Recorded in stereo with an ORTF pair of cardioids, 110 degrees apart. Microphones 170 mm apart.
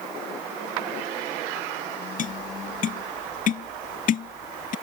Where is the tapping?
50° left.